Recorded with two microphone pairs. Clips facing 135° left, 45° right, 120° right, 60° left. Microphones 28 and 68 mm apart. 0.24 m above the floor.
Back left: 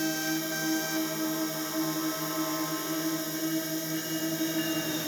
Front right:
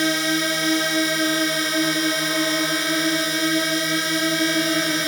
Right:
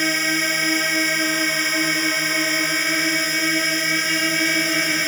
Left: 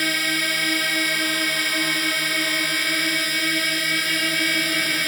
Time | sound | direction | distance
0.0 | a drone | 40° right | ?